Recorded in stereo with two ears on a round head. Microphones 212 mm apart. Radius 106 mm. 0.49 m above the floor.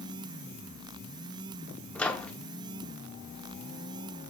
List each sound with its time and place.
1.9 s a microwave: 5° left (ahead or behind), 0.8 m